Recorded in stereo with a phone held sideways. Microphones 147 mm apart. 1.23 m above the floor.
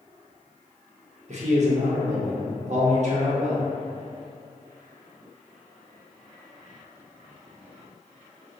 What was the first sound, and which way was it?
A man speaking, 50° right (ahead or behind).